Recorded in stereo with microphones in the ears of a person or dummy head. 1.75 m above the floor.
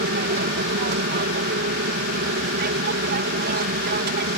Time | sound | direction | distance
0.0 | an aircraft | 55° right (ahead or behind) | ?